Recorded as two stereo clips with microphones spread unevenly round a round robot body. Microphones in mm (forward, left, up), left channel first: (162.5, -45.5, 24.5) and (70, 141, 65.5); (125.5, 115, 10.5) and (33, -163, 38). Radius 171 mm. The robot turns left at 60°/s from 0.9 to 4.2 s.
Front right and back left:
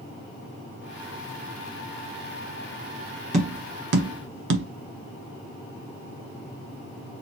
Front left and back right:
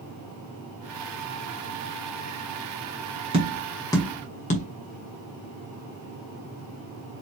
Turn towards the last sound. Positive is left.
turn(degrees=125)